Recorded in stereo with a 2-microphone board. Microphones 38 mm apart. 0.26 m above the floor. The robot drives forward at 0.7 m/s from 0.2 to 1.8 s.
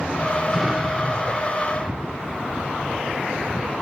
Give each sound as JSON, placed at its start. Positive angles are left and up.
{"t": 0.5, "sound": "an explosion", "side_deg": -10, "distance_m": 3.0}